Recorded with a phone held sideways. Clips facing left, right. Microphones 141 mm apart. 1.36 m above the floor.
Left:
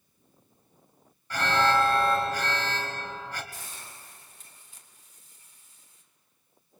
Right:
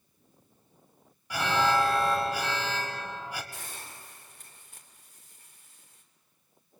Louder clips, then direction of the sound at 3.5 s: Right 1 dB; 60° right (ahead or behind).